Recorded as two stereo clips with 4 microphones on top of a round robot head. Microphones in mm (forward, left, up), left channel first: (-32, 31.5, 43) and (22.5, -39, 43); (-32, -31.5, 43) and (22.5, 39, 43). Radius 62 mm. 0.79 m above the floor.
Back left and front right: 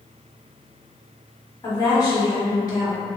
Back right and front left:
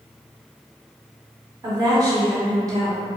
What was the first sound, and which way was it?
A woman speaking, 90° left.